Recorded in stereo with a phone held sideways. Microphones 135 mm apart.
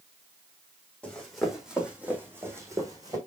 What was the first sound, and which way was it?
Running footsteps, 10° left (ahead or behind).